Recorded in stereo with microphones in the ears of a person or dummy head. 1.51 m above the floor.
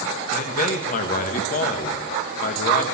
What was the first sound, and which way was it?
A man speaking, 45° left (ahead or behind).